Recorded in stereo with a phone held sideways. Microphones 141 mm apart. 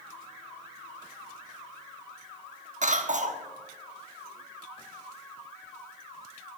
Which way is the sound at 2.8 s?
60° right (ahead or behind).